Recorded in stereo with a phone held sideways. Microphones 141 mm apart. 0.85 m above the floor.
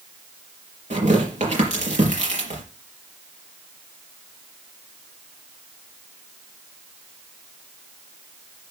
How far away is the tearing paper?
About 4.5 m.